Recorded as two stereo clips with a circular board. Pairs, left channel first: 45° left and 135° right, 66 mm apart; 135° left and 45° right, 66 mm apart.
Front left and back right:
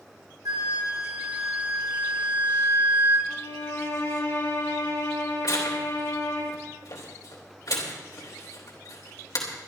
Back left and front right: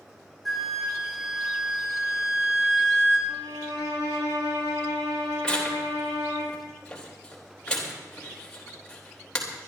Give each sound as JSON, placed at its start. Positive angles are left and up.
{"t": 0.5, "sound": "a flute", "azimuth_deg": -140, "distance_m": 3.0}
{"t": 3.3, "sound": "a violin", "azimuth_deg": -5, "distance_m": 8.0}
{"t": 5.4, "sound": "tearing paper", "azimuth_deg": 60, "distance_m": 3.5}